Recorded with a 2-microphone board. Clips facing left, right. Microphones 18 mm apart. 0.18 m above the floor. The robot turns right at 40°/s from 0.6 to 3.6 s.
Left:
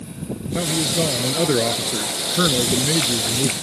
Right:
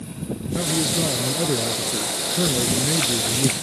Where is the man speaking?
30° left; by 3.5 s 145° left.